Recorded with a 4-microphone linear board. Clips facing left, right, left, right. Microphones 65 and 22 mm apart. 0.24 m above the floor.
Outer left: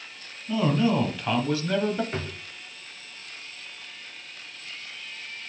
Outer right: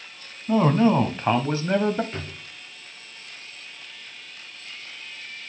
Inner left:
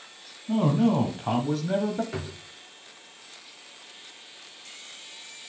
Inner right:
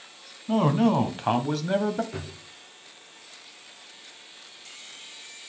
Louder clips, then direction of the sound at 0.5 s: Outer right 5 dB, inner right 1 dB; 45° right (ahead or behind).